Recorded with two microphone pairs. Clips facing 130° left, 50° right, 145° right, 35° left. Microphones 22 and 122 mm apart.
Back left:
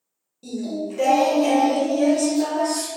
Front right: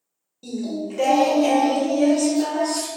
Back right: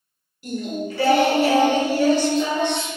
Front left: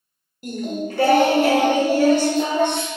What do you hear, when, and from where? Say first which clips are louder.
0.4 s singing: even, front left 1 dB; 20° left, 0.5 m